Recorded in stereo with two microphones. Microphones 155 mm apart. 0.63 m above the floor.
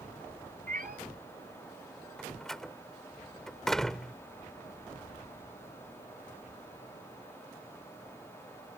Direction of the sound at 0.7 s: 65° right (ahead or behind).